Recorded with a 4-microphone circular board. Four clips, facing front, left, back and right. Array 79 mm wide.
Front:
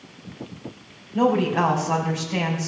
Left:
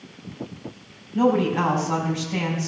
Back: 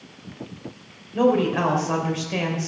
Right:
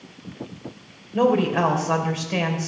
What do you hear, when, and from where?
1.1 s a woman speaking: 105° right, 3 m